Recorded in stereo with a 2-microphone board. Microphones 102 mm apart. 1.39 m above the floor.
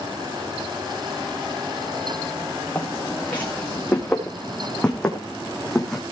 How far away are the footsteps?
About 7 m.